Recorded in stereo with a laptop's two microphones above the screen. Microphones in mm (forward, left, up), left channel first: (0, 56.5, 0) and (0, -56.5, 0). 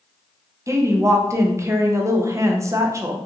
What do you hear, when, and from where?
0.7 s a woman speaking: 25° right (ahead or behind), 0.5 m